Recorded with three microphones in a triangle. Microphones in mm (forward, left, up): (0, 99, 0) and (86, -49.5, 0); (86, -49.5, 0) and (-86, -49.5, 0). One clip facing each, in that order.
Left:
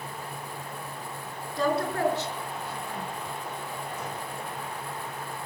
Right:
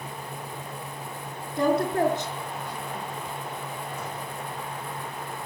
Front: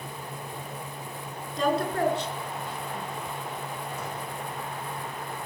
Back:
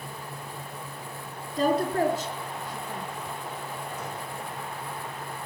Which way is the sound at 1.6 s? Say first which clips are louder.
Right 4 dB, back 2 dB; 130° right.